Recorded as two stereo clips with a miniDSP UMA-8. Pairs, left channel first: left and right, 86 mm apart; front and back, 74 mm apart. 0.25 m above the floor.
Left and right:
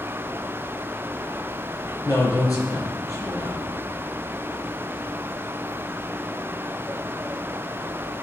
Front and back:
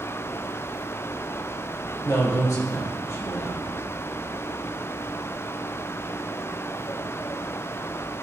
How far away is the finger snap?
I don't hear a finger snap.